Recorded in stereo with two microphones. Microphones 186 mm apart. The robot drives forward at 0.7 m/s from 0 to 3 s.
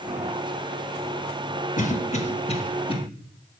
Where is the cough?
40° left (ahead or behind), 1.0 m; by 3.0 s 30° left (ahead or behind), 1.4 m.